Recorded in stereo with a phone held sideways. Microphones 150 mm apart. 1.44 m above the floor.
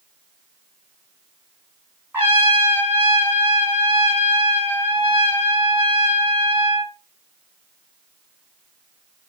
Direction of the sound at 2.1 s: 10° right (ahead or behind).